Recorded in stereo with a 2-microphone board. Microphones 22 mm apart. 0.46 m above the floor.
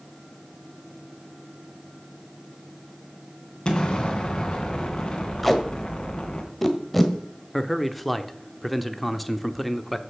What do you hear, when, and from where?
3.6 s an explosion: 35° left (ahead or behind), 2.5 m
5.4 s tape being pulled: centre (ahead or behind), 1.6 m
7.5 s a man speaking: centre (ahead or behind), 0.8 m